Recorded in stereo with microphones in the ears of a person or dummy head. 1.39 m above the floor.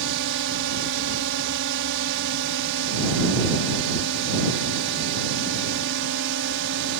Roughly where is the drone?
Right.